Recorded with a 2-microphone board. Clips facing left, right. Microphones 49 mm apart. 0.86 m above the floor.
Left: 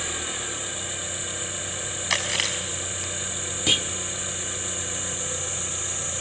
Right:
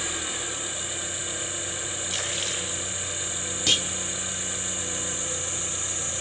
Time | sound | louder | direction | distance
0.0 | an engine running | left 1 dB | 5° left (ahead or behind) | 3 m
2.1 | chewing | left 7 dB | 75° left (ahead or behind) | 4.5 m
3.7 | a clunk | left 1 dB | 15° left (ahead or behind) | 1.2 m